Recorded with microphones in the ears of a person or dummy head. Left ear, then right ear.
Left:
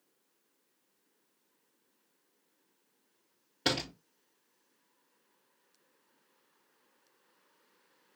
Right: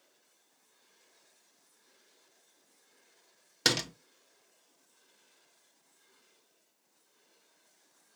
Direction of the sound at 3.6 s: 65° right (ahead or behind).